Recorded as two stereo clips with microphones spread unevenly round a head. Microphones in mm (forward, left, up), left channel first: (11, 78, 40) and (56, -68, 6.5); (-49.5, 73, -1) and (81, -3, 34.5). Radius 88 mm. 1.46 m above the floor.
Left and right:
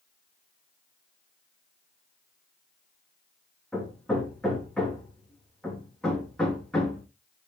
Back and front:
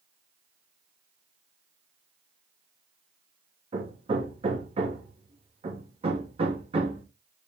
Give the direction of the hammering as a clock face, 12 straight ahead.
11 o'clock.